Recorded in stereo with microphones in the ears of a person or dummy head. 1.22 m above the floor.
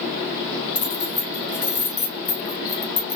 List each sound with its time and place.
0.8 s keys jangling: 15° left (ahead or behind), 0.9 m